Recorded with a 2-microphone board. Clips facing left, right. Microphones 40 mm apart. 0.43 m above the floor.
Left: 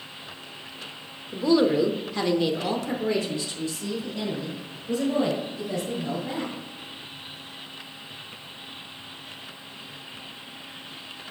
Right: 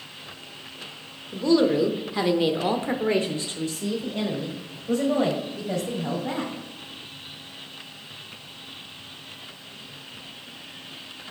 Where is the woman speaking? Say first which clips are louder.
Even; 15° left (ahead or behind), 0.9 m; by 6.5 s 60° right (ahead or behind), 2.5 m.